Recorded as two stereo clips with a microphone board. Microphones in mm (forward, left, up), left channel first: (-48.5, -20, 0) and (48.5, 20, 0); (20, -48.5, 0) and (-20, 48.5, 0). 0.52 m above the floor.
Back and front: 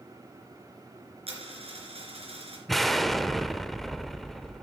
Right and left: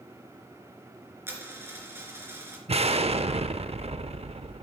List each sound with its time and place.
1.3 s a dropped coin: 45° left, 2.5 m
2.7 s an explosion: 115° left, 0.6 m